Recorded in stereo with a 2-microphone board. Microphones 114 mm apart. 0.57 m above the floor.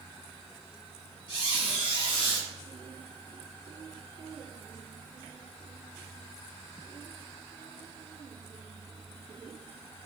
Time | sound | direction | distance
1.3 | a squeak | 45° left (ahead or behind) | 0.9 m